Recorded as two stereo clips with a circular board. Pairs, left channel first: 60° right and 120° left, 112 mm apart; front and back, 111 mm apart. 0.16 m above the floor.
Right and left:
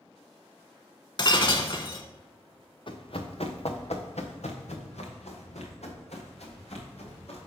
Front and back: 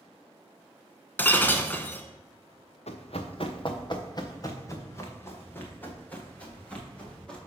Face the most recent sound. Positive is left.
turn(degrees=-80)